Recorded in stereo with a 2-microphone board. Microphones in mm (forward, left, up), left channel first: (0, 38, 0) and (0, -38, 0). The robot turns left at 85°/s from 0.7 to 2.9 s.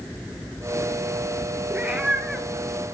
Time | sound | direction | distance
1.7 | a cat meowing | 25° right (ahead or behind) | 0.8 m